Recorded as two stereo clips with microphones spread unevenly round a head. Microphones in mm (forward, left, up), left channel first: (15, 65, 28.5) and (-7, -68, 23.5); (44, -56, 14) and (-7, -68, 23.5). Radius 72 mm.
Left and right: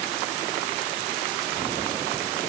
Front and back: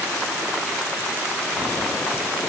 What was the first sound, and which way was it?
Only background noise.